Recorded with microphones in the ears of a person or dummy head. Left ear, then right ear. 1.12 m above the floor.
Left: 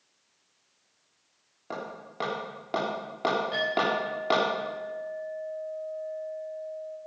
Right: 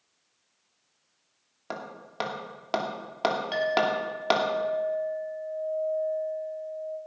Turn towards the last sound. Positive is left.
turn(degrees=-45)  # may be behind; listen again after turning